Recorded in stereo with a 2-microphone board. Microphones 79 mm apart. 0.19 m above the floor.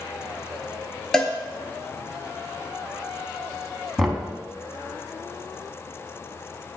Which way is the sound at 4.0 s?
Centre (ahead or behind).